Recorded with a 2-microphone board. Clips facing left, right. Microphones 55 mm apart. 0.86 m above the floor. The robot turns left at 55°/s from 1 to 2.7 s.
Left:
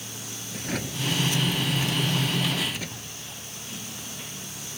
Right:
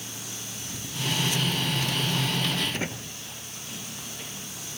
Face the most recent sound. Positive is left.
turn(degrees=-30)  # may be behind; listen again after turning